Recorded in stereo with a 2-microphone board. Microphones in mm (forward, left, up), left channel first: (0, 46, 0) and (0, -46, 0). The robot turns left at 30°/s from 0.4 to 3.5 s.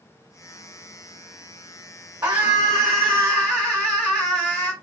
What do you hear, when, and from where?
2.2 s a scream: 140° right, 1.2 m; by 4.7 s straight behind, 1.2 m